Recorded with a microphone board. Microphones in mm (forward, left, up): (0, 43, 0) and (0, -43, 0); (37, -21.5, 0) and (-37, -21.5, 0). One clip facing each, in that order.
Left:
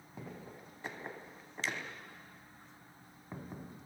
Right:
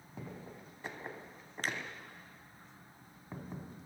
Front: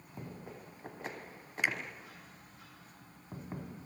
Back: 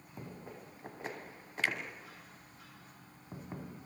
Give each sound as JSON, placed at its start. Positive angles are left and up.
{"t": 1.6, "sound": "a finger snap", "azimuth_deg": -70, "distance_m": 2.5}